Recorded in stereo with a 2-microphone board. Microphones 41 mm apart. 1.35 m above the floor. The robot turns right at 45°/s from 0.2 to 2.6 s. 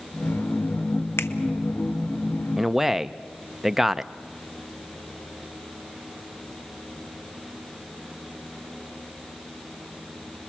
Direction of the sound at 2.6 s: 5° right (ahead or behind).